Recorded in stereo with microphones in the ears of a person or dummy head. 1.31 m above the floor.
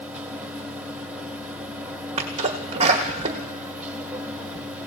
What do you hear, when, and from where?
0.0 s a machine running: 10° right (ahead or behind), 1.1 m
2.2 s a sneeze: 35° right (ahead or behind), 0.9 m